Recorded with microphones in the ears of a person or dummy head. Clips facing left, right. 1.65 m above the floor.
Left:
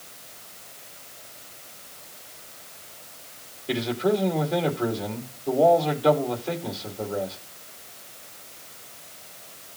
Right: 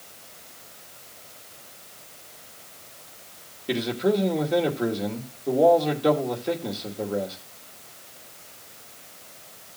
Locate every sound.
3.7 s a man speaking: 20° right (ahead or behind), 2.5 m